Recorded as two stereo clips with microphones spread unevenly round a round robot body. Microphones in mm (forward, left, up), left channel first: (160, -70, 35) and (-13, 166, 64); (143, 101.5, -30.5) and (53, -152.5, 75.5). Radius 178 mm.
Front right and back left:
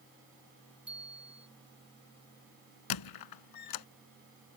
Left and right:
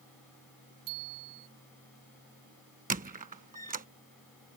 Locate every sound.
0.9 s a bicycle bell: 150° right
2.9 s a squeak: 55° right